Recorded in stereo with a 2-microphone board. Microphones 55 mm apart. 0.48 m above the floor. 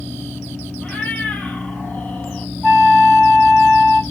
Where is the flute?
Centre (ahead or behind), 4 m.